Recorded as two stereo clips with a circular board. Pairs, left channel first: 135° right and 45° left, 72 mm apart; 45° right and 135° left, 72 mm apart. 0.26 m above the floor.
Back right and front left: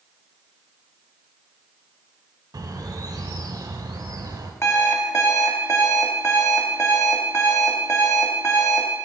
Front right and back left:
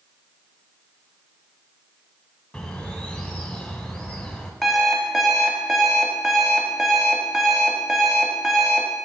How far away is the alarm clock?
About 0.7 m.